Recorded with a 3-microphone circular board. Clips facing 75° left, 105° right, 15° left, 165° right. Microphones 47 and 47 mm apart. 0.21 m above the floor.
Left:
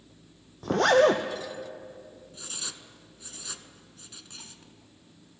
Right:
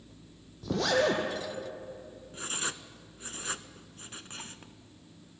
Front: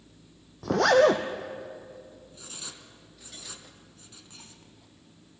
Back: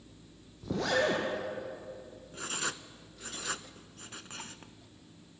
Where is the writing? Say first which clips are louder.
Right 7 dB, back 12 dB; 150° right, 0.7 m.